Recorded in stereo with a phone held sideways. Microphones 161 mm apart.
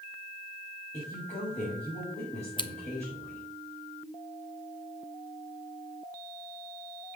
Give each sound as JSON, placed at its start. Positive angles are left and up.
{"t": 0.9, "sound": "a woman speaking", "side_deg": 50, "distance_m": 6.0}
{"t": 2.6, "sound": "scissors", "side_deg": 30, "distance_m": 0.7}